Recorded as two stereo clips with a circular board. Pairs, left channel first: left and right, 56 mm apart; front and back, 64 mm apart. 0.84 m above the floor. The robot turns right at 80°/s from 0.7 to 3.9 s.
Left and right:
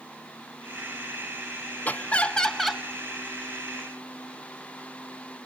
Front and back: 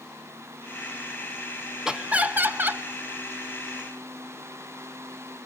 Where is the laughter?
110° left, 0.9 m; by 2.8 s 170° right, 0.9 m.